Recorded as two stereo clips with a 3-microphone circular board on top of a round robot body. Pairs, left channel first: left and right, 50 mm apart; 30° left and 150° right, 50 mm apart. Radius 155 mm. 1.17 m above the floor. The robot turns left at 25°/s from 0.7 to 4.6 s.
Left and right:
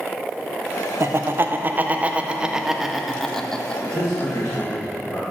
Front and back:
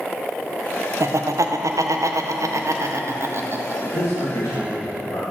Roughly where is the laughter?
Behind right.